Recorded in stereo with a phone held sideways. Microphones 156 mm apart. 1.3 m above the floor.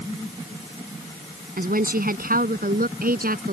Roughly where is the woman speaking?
Right.